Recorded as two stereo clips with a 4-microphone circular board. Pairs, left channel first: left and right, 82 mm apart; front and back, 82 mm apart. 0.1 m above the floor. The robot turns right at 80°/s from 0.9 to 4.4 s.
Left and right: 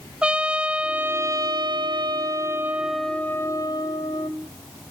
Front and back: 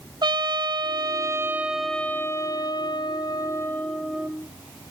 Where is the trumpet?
165° right, 0.7 m; by 4.3 s 105° left, 0.7 m.